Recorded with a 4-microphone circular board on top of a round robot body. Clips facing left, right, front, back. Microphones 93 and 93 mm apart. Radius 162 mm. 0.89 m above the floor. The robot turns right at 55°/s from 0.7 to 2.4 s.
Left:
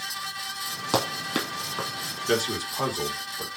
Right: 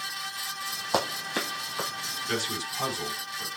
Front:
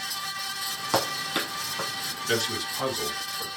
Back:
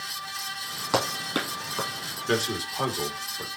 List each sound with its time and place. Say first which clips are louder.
0.9 s running footsteps: left 2 dB, back 1 dB; 90° left, 1.5 m; by 1.9 s 145° left, 1.5 m
2.3 s a man speaking: left 7 dB, back 2 dB; 120° left, 2 m; by 3.5 s 130° left, 2 m